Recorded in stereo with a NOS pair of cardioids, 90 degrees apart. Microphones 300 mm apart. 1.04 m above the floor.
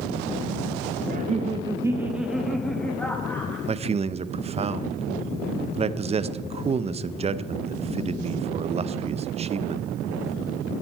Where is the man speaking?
20° right, 0.5 m.